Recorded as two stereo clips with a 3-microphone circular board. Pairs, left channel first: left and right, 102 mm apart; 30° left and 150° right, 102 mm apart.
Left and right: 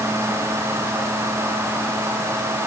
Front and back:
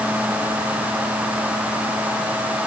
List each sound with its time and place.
Only background noise.